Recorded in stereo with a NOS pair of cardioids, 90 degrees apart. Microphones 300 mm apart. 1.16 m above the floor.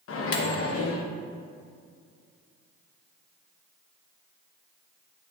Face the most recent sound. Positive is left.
turn(degrees=50)